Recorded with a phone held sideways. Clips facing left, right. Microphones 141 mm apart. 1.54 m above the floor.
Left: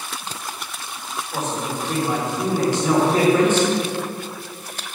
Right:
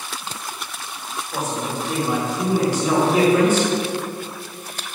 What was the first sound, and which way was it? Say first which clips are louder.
A man speaking: right 1 dB; 10° right (ahead or behind).